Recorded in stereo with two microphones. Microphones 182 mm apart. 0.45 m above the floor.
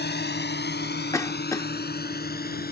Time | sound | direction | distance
0.0 | a drone | 65° left (ahead or behind) | ?
1.1 | a cough | 15° left (ahead or behind) | ?